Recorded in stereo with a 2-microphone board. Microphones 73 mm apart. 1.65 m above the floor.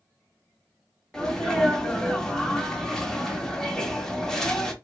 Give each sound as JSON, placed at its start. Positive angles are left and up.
{"t": 1.1, "sound": "a sneeze", "side_deg": 5, "distance_m": 0.8}